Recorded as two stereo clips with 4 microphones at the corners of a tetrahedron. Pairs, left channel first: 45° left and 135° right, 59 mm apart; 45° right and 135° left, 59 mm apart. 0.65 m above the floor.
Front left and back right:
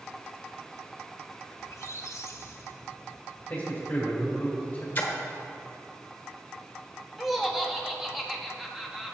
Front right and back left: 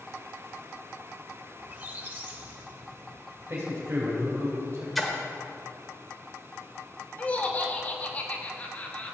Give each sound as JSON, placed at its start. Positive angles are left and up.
{"t": 1.6, "sound": "a squeak", "azimuth_deg": 75, "distance_m": 0.8}
{"t": 3.5, "sound": "a man speaking", "azimuth_deg": 105, "distance_m": 2.0}
{"t": 5.0, "sound": "a splash", "azimuth_deg": 45, "distance_m": 1.3}
{"t": 7.2, "sound": "laughter", "azimuth_deg": -55, "distance_m": 1.0}